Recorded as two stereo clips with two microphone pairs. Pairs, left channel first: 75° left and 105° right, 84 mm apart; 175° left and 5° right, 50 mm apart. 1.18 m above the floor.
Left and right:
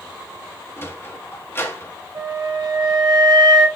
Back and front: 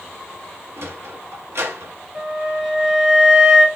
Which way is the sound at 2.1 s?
90° right.